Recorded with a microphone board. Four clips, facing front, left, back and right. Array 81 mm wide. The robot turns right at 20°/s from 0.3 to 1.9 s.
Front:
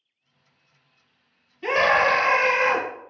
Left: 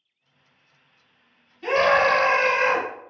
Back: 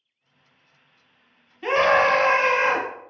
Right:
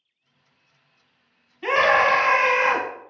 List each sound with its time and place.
1.6 s a scream: 115° right, 1.1 m; by 2.9 s 110° right, 1.1 m